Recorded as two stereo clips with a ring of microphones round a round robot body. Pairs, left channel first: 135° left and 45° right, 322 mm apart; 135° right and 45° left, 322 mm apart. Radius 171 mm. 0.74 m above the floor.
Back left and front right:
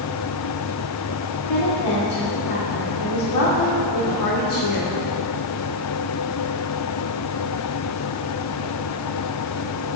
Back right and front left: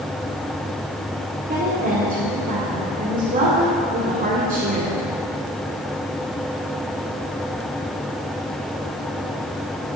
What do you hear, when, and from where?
1.5 s a woman speaking: 110° left, 1.9 m